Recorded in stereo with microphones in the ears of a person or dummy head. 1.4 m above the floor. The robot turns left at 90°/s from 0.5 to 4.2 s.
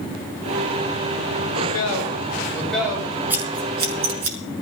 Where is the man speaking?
115° left, 6.5 m; by 3.1 s 30° right, 6.5 m.